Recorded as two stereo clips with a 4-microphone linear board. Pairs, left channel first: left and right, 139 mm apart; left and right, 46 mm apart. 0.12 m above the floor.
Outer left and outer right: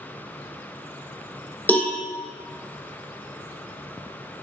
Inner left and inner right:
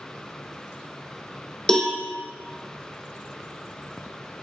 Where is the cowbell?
15° left (ahead or behind), 0.7 m.